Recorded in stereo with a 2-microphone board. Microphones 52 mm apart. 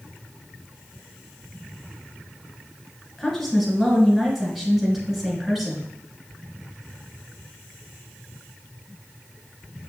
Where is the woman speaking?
5° right (ahead or behind), 1.3 m.